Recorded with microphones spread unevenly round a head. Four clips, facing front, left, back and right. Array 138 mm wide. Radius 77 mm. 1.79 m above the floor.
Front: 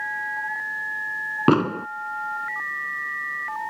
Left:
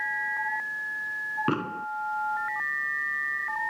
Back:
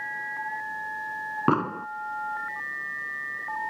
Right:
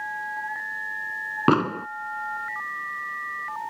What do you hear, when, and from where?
1.5 s an explosion: 50° right